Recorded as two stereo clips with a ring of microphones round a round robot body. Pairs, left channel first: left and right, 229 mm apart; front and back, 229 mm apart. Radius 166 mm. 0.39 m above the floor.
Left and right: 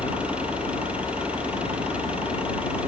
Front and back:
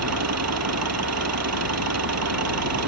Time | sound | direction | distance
0.0 | an engine running | 175° right | ?